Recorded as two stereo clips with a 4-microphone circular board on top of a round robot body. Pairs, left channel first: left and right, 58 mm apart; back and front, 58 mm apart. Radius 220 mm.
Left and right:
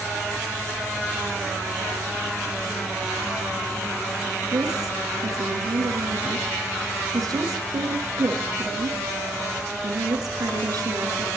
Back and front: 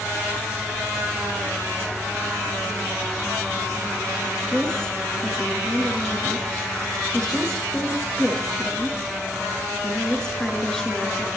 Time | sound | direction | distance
4.5 | a woman speaking | 100° right | 6.5 m